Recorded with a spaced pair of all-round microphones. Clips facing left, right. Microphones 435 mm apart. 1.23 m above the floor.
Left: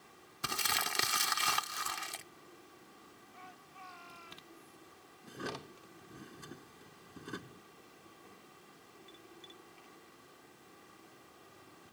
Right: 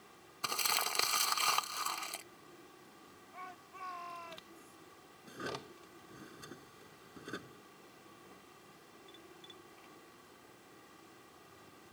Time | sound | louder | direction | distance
0.4 | crumpling | left 1 dB | 35° left (ahead or behind) | ?
3.3 | a shout | right 2 dB | 70° right (ahead or behind) | ?
5.2 | a drawer | left 1 dB | 10° left (ahead or behind) | ?